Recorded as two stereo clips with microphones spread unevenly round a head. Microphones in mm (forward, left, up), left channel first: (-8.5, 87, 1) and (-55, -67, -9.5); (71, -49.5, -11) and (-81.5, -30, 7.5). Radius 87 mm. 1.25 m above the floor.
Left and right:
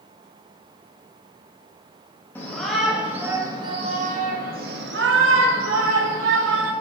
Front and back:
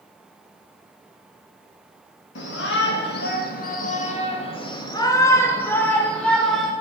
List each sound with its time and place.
2.4 s a shout: 5° right, 1.6 m; by 6.7 s 95° right, 2.5 m